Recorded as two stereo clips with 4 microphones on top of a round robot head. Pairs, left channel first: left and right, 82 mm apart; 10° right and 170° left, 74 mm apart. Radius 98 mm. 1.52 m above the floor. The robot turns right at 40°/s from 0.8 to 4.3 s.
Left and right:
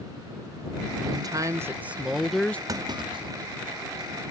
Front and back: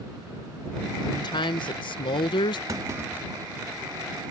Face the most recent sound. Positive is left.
turn(degrees=-70)